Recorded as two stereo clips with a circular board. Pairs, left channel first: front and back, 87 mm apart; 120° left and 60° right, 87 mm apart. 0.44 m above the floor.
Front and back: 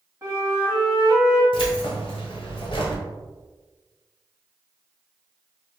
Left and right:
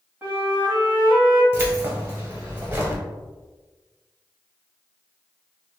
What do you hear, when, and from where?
0.2 s a flute: 125° right, 1.8 m
1.5 s keys jangling: 5° left, 1.4 m